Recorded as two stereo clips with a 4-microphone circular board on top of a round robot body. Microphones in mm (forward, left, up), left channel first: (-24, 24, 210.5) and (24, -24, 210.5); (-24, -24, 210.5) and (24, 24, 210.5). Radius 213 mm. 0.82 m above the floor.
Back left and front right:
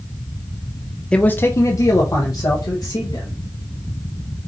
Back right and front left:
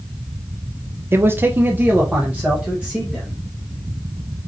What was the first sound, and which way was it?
A man speaking, 65° left.